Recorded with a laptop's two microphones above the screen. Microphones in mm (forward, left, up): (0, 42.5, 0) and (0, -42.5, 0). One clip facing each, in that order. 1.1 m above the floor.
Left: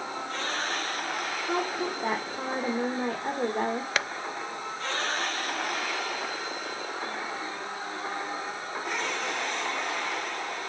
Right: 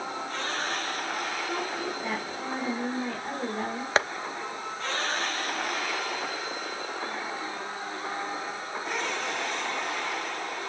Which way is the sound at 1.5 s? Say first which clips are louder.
Left 2 dB; 40° left (ahead or behind).